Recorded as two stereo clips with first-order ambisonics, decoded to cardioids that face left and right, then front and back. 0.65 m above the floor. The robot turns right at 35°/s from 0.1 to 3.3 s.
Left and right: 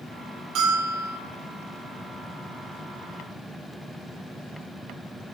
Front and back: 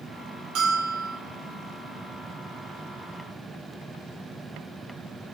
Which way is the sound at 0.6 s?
140° right.